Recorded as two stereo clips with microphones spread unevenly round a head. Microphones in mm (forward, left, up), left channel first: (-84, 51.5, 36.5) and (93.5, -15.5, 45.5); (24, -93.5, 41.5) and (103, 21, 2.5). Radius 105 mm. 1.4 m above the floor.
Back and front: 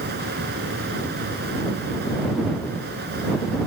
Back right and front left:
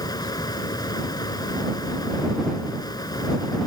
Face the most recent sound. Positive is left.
turn(degrees=-65)